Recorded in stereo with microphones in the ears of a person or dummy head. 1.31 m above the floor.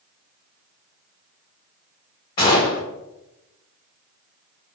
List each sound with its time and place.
2.4 s a gunshot: 30° left (ahead or behind), 1.1 m